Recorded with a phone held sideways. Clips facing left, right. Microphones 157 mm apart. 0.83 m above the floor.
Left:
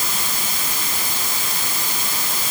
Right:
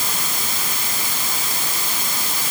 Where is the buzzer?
No buzzer in this recording.